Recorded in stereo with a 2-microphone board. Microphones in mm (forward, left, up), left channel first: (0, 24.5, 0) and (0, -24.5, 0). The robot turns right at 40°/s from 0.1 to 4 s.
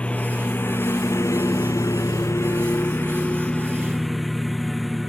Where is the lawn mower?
20° left; by 5.1 s straight behind.